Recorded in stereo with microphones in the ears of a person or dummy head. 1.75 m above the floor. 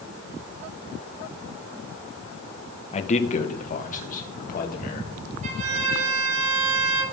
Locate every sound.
2.9 s a man speaking: 40° left (ahead or behind), 1.6 m; by 5.1 s 50° left (ahead or behind), 4 m
5.4 s a violin: 40° right (ahead or behind), 9 m